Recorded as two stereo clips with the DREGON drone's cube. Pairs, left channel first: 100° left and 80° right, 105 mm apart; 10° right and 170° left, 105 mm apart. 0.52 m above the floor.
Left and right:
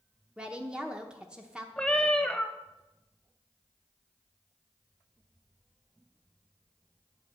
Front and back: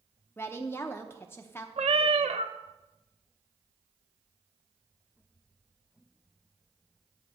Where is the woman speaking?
20° right, 0.7 m.